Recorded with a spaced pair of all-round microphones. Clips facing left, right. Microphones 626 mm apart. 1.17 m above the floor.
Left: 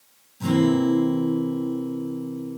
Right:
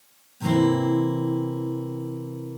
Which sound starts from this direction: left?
A guitar, at 0.4 s.